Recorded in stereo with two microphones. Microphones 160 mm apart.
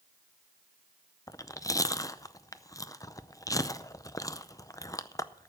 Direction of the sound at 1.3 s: 20° left (ahead or behind).